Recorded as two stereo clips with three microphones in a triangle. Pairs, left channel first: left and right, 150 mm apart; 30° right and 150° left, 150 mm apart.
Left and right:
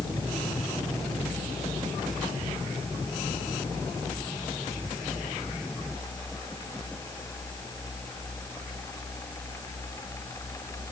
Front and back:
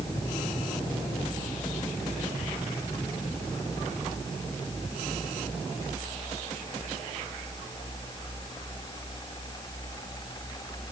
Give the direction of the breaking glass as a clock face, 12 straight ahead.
I don't hear breaking glass.